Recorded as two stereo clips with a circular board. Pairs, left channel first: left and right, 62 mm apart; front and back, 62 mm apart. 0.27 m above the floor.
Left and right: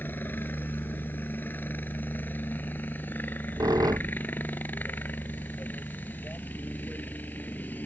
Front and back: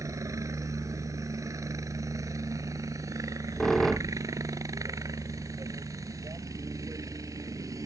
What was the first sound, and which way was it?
A helicopter, 150° left.